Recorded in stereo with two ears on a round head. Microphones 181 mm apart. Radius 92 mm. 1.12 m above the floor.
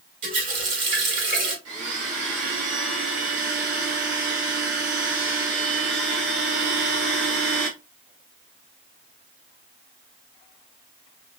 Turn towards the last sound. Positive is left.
turn(degrees=-70)  # may be behind; listen again after turning